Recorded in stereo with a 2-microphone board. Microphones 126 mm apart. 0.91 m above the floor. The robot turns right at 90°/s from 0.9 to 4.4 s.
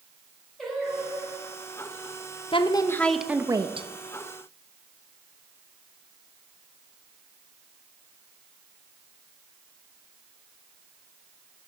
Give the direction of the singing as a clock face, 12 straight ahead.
6 o'clock.